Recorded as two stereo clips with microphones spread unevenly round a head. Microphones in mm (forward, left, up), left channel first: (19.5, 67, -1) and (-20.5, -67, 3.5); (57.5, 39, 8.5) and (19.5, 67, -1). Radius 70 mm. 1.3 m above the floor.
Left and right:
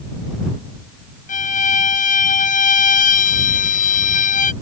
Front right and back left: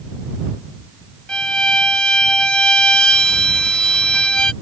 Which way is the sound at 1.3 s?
35° left.